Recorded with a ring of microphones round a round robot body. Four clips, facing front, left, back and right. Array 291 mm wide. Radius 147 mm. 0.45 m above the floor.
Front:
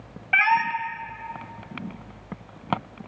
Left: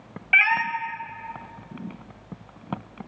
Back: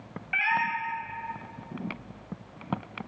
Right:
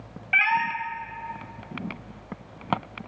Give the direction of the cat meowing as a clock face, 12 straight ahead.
11 o'clock.